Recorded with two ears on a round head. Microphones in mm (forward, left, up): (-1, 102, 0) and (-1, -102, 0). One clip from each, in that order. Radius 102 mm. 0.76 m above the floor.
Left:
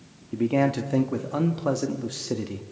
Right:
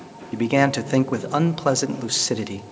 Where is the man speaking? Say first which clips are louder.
Right 4 dB; 50° right (ahead or behind), 1.1 m.